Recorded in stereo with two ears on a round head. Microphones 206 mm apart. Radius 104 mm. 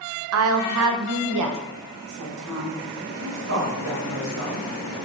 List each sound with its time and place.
0.3 s a woman speaking: 60° right (ahead or behind), 0.8 m; by 2.8 s 85° right, 2.0 m
3.2 s a woman speaking: 55° right (ahead or behind), 2.5 m